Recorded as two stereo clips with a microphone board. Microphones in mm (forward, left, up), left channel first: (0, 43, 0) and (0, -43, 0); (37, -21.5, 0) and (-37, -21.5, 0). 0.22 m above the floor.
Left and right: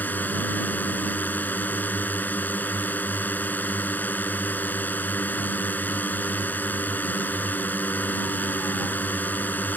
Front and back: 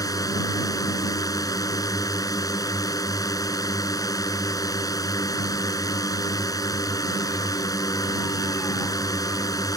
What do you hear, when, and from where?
0.0 s a drone: 25° left